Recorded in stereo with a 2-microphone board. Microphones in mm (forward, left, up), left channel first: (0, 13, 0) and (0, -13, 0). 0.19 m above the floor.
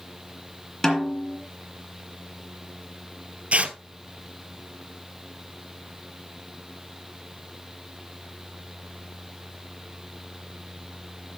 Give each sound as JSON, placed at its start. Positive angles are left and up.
{"t": 0.8, "sound": "a snare drum", "side_deg": 20, "distance_m": 2.0}
{"t": 3.5, "sound": "tearing paper", "side_deg": -55, "distance_m": 0.7}